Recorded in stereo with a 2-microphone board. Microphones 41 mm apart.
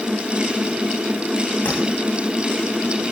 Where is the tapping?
45° left (ahead or behind), 8 m.